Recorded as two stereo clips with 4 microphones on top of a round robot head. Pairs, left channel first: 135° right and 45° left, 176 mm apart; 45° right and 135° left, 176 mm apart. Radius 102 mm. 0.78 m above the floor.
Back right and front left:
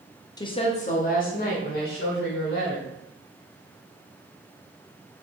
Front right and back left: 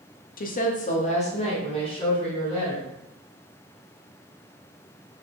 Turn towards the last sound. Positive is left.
turn(degrees=-110)